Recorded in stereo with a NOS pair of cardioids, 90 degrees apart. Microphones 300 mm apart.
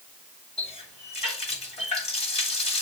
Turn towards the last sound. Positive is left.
turn(degrees=20)